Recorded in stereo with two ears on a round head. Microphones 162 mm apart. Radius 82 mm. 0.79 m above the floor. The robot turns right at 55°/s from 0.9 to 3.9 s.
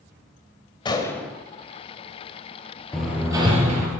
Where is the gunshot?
25° left (ahead or behind), 1.9 m; by 1.3 s centre (ahead or behind), 1.9 m.